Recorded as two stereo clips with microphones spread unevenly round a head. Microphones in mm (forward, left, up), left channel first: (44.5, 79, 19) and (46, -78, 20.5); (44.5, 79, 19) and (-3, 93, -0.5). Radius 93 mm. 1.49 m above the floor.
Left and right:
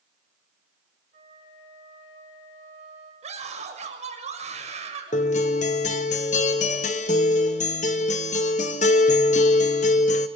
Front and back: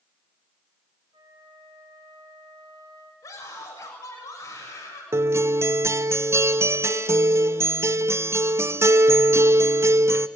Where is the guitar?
140° left, 1.1 m.